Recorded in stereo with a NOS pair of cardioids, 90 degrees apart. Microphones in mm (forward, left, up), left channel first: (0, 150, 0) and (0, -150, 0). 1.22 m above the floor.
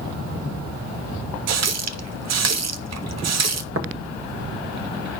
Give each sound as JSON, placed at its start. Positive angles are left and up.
{"t": 1.5, "sound": "a running tap", "azimuth_deg": -65, "distance_m": 0.6}
{"t": 3.8, "sound": "tapping", "azimuth_deg": -50, "distance_m": 1.4}